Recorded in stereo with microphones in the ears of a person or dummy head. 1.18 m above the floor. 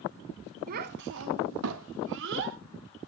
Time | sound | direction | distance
0.7 | a child speaking | 45° right (ahead or behind) | 1.1 m